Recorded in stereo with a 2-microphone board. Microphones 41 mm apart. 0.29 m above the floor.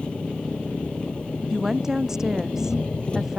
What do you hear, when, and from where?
0.0 s an engine running: 25° left (ahead or behind)
1.5 s a woman speaking: 10° right (ahead or behind)